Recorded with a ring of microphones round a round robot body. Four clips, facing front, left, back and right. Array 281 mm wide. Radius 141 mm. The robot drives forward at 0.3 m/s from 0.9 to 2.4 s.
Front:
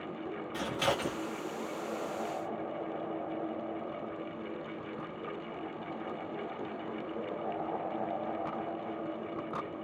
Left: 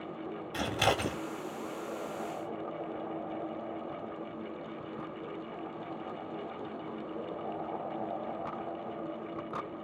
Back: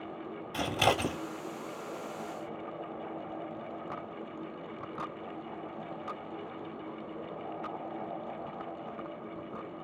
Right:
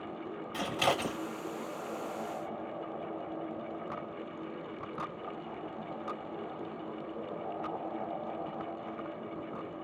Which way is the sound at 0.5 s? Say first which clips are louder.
Left 1 dB, back 4 dB; 150° left.